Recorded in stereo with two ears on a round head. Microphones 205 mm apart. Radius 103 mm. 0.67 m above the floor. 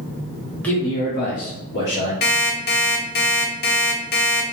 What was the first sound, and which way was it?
A man speaking, 5° left (ahead or behind).